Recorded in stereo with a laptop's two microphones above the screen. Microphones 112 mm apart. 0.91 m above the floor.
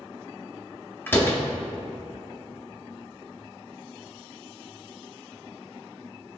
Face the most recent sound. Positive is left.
turn(degrees=20)  # may be behind; listen again after turning